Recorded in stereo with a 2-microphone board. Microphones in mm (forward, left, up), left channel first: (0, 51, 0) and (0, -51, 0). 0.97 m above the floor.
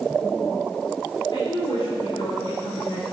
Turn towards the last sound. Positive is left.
turn(degrees=75)  # may be behind; listen again after turning